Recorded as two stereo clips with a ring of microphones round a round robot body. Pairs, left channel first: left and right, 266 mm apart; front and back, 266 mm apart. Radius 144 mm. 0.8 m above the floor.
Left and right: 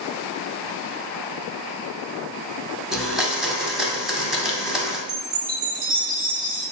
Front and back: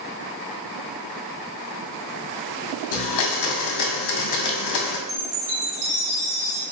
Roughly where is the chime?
Behind right.